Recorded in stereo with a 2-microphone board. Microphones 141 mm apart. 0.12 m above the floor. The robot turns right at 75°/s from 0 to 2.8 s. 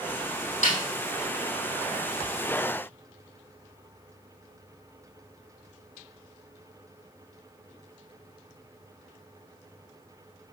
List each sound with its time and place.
0.6 s a snare drum: 60° left (ahead or behind), 3 m; by 0.8 s 50° left (ahead or behind), 3 m